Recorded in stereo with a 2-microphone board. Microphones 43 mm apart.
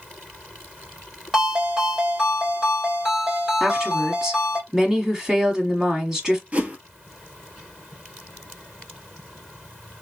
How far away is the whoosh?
About 1.0 m.